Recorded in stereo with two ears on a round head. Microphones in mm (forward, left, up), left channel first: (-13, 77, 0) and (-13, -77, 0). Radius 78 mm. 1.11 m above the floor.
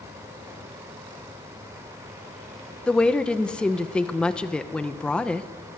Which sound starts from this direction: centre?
A woman speaking, at 2.9 s.